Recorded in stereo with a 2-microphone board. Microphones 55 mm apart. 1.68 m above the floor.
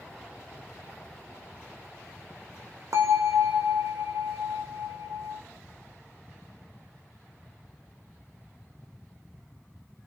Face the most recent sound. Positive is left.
turn(degrees=-75)  # may be behind; listen again after turning